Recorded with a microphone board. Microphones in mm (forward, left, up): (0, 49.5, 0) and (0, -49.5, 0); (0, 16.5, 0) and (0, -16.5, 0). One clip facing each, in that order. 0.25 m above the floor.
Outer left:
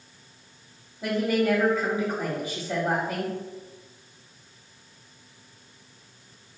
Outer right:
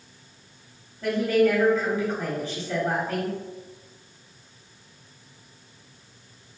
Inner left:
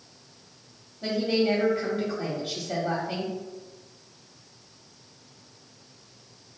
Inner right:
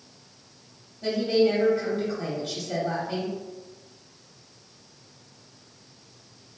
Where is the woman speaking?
15° left (ahead or behind), 1.0 m.